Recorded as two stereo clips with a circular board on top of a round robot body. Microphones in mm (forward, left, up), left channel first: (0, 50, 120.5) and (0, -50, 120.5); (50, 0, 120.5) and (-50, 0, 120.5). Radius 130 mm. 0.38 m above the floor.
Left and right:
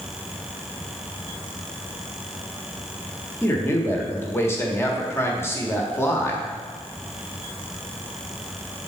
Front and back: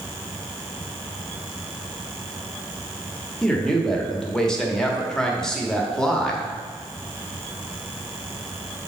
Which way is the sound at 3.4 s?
75° left.